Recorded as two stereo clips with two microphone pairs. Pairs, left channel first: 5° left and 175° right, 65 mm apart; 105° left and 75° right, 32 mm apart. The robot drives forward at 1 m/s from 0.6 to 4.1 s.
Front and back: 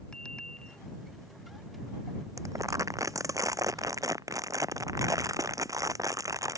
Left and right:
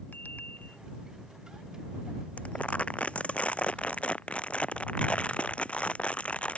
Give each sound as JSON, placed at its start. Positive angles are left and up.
{"t": 0.1, "sound": "a bicycle bell", "azimuth_deg": 80}
{"t": 2.4, "sound": "crumpling", "azimuth_deg": 150}